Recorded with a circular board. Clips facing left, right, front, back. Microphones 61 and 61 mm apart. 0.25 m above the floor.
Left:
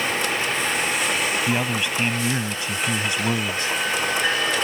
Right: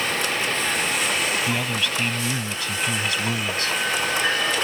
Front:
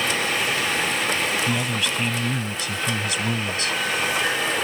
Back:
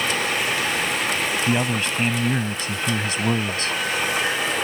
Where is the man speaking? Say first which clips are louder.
Left 2 dB, back 2 dB; 150° left.